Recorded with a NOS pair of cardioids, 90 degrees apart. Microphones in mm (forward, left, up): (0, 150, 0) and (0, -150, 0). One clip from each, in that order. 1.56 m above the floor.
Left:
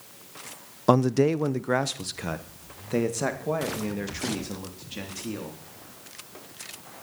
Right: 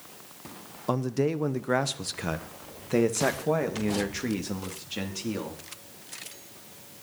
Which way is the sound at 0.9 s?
40° left.